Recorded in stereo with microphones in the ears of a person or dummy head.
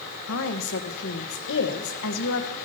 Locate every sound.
0.3 s a woman speaking: 70° left (ahead or behind), 1.5 m